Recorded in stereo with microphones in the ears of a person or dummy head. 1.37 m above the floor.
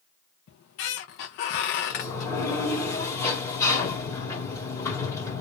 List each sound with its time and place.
0.5 s a squeak: 60° left (ahead or behind), 0.7 m
1.9 s a sliding door: 15° left (ahead or behind), 1.7 m